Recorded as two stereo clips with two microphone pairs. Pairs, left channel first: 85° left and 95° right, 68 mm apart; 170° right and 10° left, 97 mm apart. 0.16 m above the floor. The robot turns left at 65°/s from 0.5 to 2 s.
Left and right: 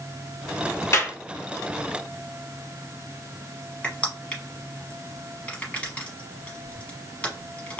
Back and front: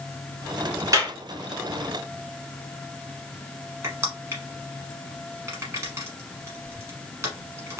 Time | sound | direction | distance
0.9 | a clap | 55° left | 1.2 m
3.8 | crushing | 35° left | 1.1 m